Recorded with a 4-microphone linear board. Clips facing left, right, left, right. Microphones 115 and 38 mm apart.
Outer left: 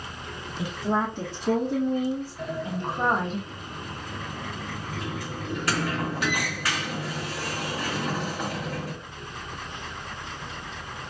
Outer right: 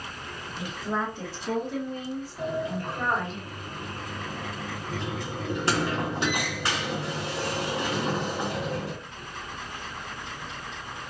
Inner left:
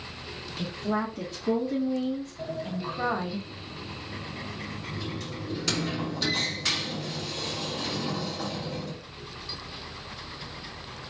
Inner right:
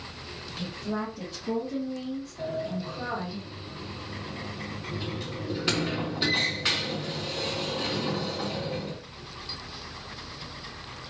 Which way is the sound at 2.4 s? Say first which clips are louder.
Outer right 1 dB, inner right 2 dB; 25° right (ahead or behind).